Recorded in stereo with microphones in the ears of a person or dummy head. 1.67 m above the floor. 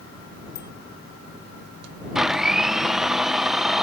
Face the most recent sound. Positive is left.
turn(degrees=0)  # may be behind; listen again after turning